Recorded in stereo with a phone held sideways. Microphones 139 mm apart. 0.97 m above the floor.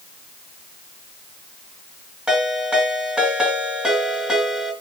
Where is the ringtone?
5° right (ahead or behind), 6.5 m.